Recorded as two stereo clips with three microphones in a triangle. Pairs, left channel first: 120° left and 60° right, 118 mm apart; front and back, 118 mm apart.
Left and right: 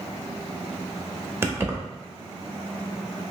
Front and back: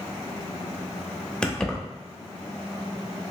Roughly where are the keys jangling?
Right.